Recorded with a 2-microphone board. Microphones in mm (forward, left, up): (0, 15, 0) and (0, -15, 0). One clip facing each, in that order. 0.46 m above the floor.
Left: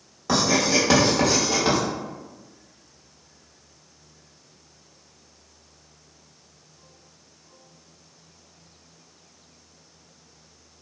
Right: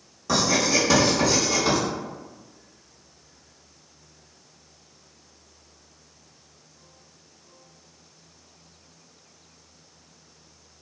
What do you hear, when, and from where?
0.3 s writing: 25° left (ahead or behind), 1.2 m